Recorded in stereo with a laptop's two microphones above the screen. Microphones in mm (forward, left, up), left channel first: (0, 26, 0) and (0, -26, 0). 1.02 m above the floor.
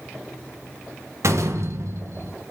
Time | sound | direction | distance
1.2 | a door slam | 65° right (ahead or behind) | 0.7 m